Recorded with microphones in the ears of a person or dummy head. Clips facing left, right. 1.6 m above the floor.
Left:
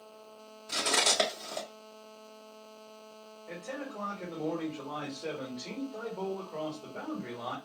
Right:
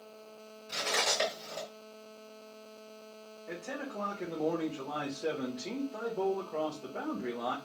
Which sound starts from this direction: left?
Cutlery clinking, at 0.7 s.